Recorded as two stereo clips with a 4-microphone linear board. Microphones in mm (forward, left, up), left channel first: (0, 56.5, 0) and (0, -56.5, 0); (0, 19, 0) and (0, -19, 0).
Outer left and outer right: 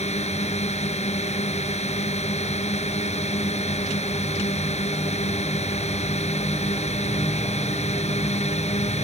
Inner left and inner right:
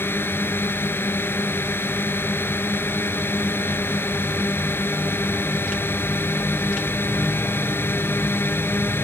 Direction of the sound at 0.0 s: 75° left (ahead or behind).